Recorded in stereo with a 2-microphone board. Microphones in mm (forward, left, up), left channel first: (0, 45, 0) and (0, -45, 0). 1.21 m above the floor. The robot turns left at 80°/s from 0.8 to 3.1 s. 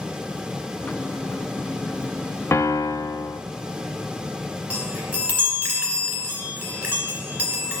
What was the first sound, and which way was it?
A piano, 130° left.